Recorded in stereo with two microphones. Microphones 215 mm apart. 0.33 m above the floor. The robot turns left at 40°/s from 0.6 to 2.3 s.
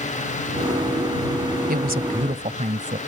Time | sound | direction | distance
1.7 | a woman speaking | 45° right (ahead or behind) | ?